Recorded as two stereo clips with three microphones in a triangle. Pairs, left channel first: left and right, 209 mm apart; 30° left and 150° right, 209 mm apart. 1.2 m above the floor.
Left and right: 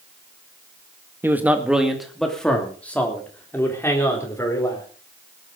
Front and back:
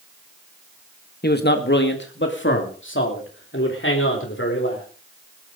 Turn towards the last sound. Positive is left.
turn(degrees=15)